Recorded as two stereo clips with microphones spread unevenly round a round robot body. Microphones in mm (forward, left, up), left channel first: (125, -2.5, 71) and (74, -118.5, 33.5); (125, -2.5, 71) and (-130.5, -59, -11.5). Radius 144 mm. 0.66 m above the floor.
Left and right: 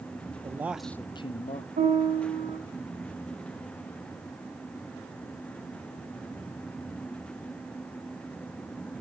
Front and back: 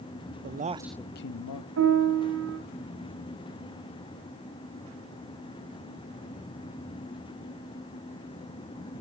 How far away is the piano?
About 3.5 m.